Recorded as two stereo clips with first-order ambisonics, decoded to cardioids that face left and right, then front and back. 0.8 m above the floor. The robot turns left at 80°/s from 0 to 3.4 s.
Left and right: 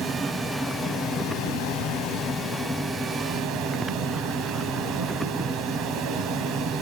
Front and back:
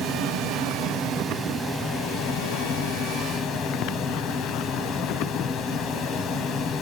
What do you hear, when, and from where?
0.0 s running water: 135° right, 1.3 m; by 6.8 s 50° right, 1.3 m